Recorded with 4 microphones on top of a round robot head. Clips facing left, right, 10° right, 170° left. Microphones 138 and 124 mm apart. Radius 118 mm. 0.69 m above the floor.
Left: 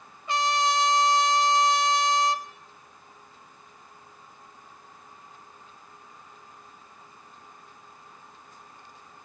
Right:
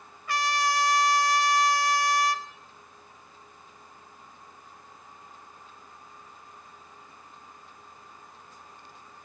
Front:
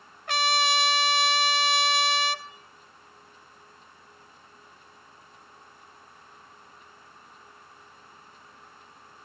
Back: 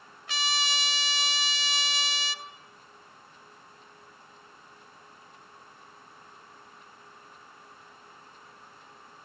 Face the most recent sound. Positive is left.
turn(degrees=20)